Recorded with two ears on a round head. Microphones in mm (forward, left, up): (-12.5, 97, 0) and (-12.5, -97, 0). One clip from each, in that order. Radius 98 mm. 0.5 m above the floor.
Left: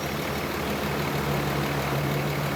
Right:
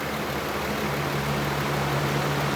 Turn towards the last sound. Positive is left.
No sound to turn to.